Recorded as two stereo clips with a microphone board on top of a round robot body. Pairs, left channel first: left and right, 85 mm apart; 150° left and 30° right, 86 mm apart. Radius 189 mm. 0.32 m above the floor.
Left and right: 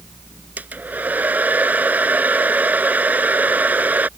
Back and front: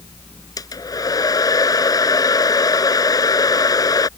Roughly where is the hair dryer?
Behind.